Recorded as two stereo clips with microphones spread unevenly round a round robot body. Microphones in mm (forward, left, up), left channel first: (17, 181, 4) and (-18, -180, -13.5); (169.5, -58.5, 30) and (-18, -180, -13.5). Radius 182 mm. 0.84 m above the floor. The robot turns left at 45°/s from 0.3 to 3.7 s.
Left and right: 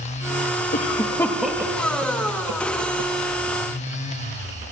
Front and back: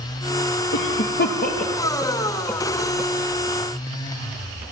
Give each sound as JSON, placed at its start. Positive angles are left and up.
{"t": 0.7, "sound": "a cough", "azimuth_deg": 25, "distance_m": 1.2}